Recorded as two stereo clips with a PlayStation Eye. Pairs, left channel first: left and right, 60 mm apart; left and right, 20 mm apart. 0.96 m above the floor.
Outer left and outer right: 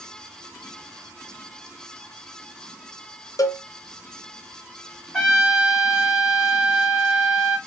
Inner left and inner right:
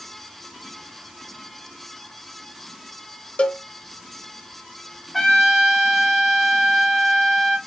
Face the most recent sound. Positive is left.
turn(degrees=10)  # may be behind; listen again after turning